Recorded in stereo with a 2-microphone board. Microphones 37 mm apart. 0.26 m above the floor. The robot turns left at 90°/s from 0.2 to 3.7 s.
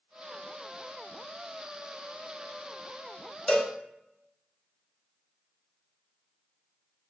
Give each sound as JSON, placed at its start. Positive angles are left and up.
{"t": 3.5, "sound": "a cowbell", "side_deg": 25, "distance_m": 0.6}